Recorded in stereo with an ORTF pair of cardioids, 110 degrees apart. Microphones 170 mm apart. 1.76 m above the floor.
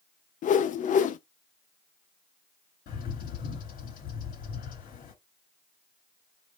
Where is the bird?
55° left, 3 m.